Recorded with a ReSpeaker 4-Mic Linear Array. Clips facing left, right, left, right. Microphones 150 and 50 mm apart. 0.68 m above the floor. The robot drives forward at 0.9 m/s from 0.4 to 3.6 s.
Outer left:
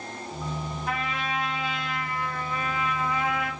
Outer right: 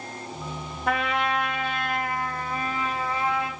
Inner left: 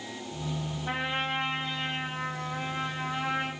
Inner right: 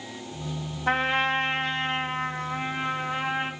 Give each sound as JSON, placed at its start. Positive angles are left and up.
{"t": 0.9, "sound": "a trumpet", "side_deg": -85, "distance_m": 1.4}